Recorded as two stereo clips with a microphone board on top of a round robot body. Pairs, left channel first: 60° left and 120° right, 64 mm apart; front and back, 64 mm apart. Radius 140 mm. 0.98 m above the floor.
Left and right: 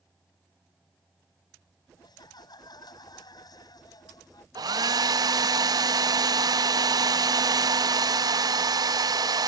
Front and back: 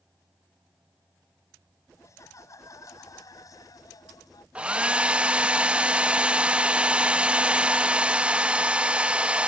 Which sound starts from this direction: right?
A hair dryer, at 4.5 s.